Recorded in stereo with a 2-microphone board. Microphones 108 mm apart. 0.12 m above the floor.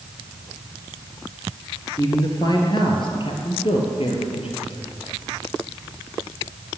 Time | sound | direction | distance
2.0 | a man speaking | 35° left (ahead or behind) | 1.9 m